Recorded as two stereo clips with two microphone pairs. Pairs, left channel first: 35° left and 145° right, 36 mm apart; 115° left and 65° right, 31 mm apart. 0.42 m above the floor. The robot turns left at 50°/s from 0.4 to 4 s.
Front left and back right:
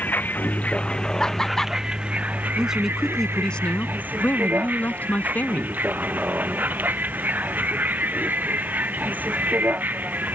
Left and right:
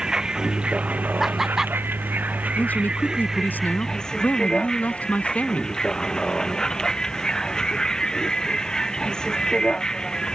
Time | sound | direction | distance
0.0 | a vehicle | straight ahead | ?
1.2 | laughter | 5° left | ?
2.6 | a man speaking | 150° left | ?